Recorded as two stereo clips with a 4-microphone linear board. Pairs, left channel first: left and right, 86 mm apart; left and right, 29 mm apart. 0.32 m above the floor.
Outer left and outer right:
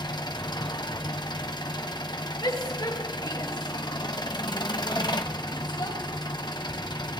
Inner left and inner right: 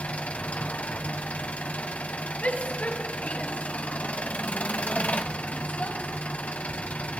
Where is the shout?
65° left (ahead or behind), 6 m.